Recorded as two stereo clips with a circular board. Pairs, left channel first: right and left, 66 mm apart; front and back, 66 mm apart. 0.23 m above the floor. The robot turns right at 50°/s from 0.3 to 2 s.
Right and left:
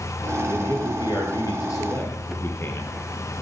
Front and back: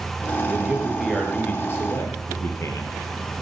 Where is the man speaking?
115° right, 5.5 m; by 3.0 s 40° right, 5.5 m.